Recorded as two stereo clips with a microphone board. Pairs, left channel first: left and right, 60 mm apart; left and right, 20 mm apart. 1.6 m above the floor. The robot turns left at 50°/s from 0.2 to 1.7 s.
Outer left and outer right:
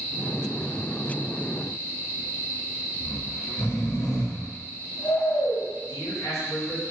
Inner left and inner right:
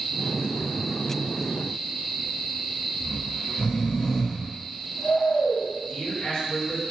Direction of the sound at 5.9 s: 70° left (ahead or behind).